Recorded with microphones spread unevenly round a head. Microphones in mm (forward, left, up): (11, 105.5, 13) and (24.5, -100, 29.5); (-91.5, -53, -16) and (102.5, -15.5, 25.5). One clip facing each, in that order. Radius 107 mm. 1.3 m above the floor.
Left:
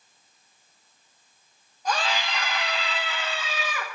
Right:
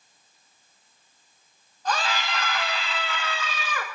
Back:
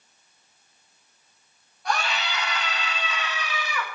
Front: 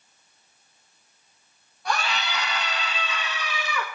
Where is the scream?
15° left, 2.5 m; by 3.9 s 20° left, 4.5 m.